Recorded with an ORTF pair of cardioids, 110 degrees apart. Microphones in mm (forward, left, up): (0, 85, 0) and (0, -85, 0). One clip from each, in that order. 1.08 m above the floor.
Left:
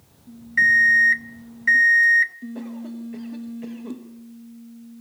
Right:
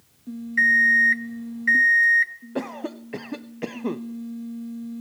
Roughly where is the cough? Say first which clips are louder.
Right 5 dB; ahead right.